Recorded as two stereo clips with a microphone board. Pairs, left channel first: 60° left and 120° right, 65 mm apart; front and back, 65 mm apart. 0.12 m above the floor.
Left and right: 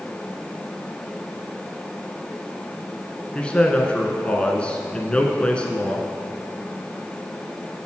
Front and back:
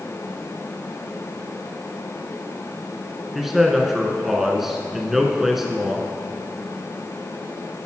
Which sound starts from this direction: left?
A man speaking, at 3.4 s.